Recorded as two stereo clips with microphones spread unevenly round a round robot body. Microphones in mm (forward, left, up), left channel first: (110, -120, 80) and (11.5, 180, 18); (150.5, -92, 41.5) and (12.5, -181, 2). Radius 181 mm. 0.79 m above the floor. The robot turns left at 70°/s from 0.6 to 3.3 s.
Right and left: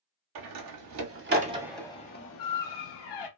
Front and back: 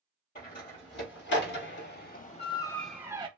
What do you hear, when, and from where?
0.3 s a door slam: 100° left, 1.0 m; by 3.3 s 90° right, 1.0 m